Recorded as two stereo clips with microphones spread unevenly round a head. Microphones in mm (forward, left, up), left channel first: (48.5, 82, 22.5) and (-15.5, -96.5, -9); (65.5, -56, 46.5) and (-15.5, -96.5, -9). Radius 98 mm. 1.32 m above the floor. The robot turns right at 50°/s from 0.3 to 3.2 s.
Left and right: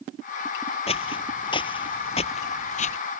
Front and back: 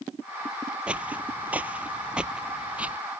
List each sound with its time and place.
0.9 s footsteps: 80° left; by 3.0 s 100° left